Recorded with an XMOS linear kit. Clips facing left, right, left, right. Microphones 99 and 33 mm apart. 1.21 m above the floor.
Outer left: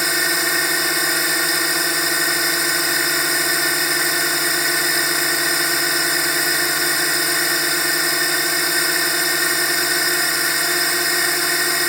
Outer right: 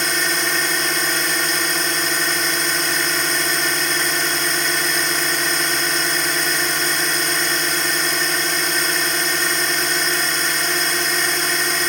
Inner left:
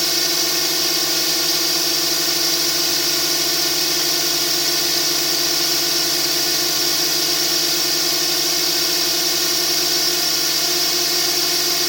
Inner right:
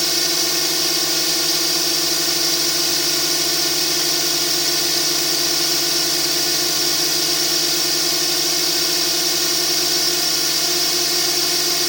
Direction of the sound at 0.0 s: 5° left (ahead or behind).